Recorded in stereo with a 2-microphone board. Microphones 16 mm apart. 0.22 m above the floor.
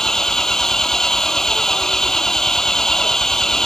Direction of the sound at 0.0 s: 35° left (ahead or behind).